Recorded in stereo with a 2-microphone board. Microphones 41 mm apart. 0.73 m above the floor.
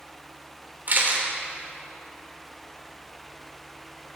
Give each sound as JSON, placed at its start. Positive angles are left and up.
{"t": 0.9, "sound": "a camera shutter", "side_deg": -45, "distance_m": 3.0}